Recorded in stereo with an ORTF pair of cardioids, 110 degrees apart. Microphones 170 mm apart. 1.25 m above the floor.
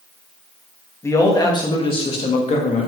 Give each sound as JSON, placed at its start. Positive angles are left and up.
{"t": 1.0, "sound": "a man speaking", "azimuth_deg": 15, "distance_m": 2.0}